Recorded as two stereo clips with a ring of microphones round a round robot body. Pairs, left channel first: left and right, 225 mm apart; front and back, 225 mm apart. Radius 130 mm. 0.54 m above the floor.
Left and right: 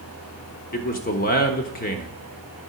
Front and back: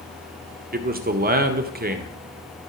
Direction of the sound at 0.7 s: 135° left.